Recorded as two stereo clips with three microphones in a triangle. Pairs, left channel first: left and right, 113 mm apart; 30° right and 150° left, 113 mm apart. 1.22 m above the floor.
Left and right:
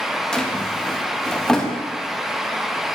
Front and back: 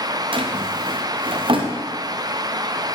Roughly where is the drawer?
Behind.